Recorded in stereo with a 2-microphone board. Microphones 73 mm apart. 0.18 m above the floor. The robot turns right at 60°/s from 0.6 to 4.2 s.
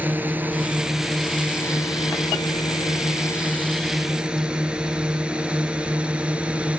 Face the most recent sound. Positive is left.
turn(degrees=-15)  # may be behind; listen again after turning